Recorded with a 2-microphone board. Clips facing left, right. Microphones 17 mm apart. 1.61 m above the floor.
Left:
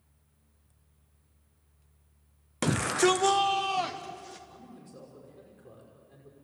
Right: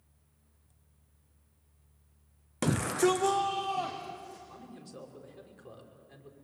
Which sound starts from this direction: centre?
A shout, at 2.6 s.